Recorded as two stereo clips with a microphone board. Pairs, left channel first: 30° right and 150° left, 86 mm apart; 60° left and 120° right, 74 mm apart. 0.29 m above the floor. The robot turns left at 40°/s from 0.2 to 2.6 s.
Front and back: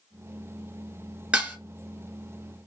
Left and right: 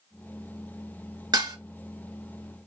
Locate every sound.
1.3 s dishes clattering: 135° right, 2.5 m; by 1.6 s 145° right, 2.5 m